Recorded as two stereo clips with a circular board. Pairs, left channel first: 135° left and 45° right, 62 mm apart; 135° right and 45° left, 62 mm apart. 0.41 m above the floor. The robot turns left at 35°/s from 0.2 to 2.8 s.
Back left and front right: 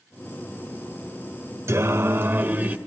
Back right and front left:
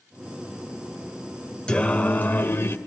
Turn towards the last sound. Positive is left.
turn(degrees=-105)